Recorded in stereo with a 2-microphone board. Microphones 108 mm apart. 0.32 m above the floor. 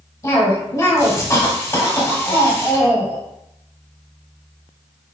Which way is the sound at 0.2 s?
30° left (ahead or behind).